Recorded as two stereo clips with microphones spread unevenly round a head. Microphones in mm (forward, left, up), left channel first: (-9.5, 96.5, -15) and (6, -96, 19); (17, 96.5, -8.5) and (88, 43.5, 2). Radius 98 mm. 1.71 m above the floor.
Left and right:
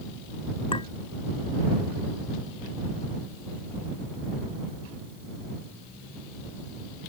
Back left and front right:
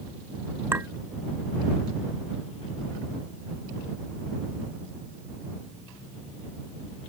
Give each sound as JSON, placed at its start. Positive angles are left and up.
{"t": 0.7, "sound": "a clink", "azimuth_deg": 30}